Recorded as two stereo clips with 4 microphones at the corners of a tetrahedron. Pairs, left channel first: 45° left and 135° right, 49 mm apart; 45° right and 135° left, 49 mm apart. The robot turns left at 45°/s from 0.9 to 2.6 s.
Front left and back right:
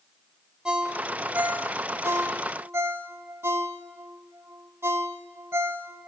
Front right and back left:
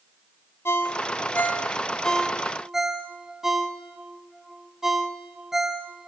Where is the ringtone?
70° right, 1.6 m; by 6.1 s 145° right, 1.6 m.